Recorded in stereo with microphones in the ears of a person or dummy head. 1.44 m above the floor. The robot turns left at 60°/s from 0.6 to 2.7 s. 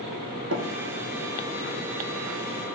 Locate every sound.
0.5 s tapping: 85° right, 1.9 m